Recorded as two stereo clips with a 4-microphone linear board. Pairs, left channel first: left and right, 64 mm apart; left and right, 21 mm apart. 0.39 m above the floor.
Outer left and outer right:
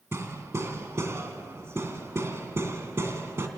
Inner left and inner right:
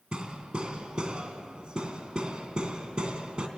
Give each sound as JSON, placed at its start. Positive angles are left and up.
{"t": 0.1, "sound": "hammering", "side_deg": -40, "distance_m": 2.5}